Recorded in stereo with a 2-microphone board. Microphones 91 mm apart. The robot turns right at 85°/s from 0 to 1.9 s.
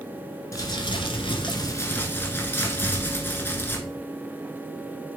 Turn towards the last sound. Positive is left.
turn(degrees=155)